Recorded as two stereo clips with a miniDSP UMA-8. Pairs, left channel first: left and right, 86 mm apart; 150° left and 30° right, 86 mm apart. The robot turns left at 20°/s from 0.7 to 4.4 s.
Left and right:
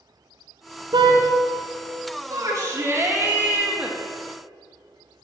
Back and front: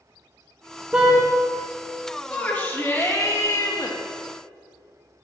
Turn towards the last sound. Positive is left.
turn(degrees=180)